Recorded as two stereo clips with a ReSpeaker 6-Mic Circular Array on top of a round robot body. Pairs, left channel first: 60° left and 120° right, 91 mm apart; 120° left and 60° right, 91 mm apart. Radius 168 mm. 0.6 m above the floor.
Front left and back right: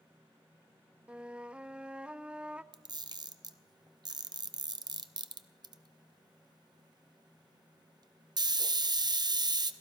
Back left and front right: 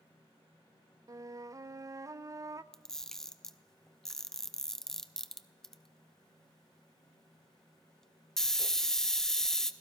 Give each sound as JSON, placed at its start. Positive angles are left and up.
{"t": 1.1, "sound": "a flute", "azimuth_deg": -50, "distance_m": 0.7}
{"t": 2.7, "sound": "a camera shutter", "azimuth_deg": -155, "distance_m": 1.0}